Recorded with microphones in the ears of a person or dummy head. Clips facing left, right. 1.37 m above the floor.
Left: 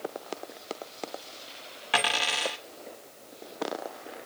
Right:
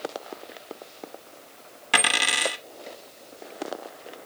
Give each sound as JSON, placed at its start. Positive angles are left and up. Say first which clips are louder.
{"t": 1.9, "sound": "a dropped coin", "louder": "right 1 dB", "side_deg": -25, "distance_m": 1.2}